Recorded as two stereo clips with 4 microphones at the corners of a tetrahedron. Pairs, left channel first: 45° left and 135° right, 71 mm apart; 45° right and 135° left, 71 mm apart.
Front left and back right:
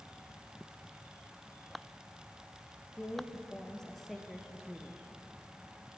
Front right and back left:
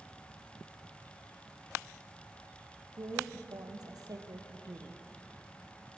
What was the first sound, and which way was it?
A woman speaking, 120° left.